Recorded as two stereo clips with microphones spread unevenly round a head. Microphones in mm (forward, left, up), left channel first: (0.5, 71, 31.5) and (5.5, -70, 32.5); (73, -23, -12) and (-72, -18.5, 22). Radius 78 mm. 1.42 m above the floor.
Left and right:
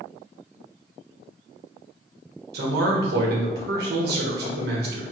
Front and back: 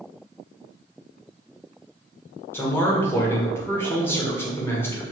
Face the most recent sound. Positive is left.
turn(degrees=-75)